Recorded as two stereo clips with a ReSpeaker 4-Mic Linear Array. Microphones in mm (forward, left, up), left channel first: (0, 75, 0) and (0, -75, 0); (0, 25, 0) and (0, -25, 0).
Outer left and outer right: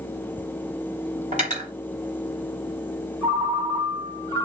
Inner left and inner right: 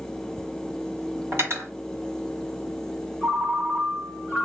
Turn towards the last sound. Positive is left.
turn(degrees=-30)  # may be behind; listen again after turning